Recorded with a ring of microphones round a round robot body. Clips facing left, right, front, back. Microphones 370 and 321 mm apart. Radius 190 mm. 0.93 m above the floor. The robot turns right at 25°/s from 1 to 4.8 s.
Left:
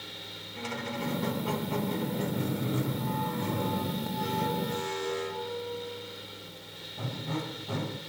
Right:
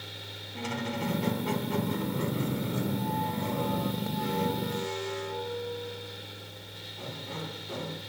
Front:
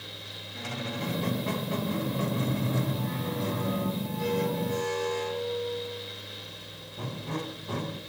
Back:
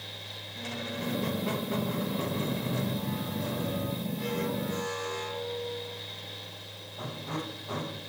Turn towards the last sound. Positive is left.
turn(degrees=55)